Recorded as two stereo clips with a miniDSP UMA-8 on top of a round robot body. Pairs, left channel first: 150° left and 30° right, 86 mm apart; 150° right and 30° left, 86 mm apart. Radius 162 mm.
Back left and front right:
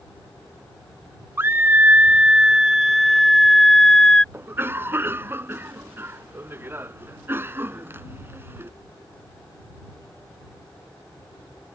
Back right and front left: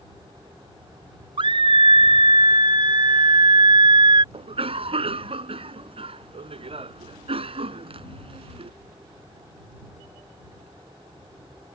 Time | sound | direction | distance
1.4 | a scream | 30° left | ?
4.3 | a cough | 35° left | ?